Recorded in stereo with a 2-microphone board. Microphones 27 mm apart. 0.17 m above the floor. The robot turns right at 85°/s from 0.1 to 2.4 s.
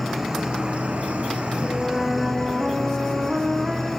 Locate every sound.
0.0 s an insect: straight behind, 3 m; by 4.0 s 15° left, 3 m
1.6 s a flute: 155° left, 2.5 m; by 3.9 s 140° right, 2.5 m